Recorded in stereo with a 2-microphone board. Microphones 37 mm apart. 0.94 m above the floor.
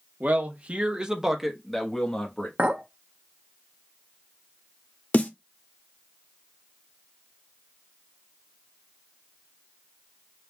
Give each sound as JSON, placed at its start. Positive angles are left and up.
{"t": 0.2, "sound": "a man speaking", "side_deg": -50, "distance_m": 1.0}
{"t": 2.6, "sound": "a clink", "side_deg": -40, "distance_m": 0.9}
{"t": 5.1, "sound": "a snare drum", "side_deg": 45, "distance_m": 0.7}